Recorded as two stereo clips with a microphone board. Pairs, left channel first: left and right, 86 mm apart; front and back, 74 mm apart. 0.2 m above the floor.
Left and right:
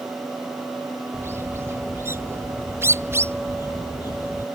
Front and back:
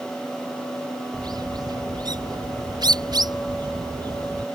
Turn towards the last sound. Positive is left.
turn(degrees=-150)